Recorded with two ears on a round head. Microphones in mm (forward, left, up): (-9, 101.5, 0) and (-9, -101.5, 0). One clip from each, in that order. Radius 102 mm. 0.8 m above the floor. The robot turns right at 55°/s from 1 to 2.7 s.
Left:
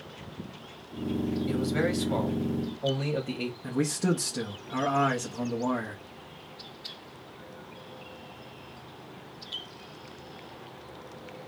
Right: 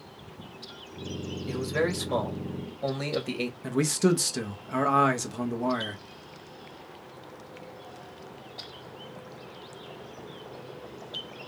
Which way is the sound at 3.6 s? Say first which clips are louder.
Right 4 dB; 30° right (ahead or behind).